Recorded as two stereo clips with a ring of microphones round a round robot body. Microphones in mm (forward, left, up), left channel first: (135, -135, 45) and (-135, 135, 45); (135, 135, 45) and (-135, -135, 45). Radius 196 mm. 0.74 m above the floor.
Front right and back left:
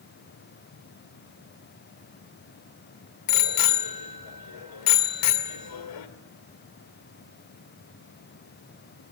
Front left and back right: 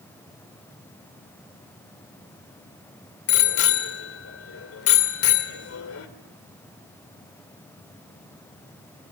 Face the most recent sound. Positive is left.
turn(degrees=-10)